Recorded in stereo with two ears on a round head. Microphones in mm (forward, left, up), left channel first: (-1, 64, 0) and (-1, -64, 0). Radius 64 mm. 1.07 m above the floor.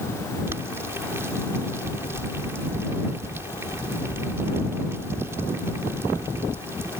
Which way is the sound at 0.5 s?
20° right (ahead or behind).